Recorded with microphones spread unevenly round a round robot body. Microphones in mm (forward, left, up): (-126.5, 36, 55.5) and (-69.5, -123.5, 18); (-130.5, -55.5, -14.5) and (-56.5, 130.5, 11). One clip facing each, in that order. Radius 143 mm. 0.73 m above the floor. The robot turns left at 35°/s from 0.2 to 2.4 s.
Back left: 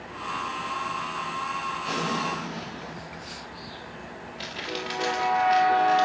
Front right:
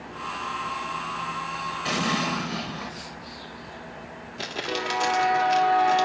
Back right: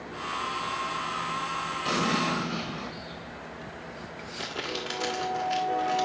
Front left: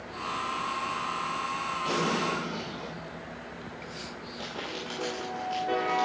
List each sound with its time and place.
1.9 s an explosion: 30° right, 3 m; by 2.9 s 50° right, 3 m
4.4 s crumpling: 35° right, 2.5 m